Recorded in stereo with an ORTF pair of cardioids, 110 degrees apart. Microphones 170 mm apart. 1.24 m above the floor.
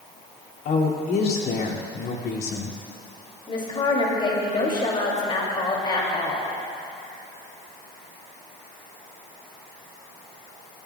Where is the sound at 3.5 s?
30° left, 3 m.